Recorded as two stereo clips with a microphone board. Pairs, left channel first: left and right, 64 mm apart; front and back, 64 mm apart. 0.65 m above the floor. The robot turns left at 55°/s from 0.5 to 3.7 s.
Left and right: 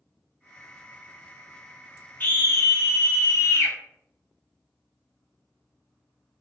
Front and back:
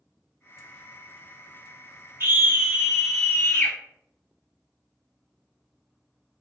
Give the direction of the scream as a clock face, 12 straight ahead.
7 o'clock.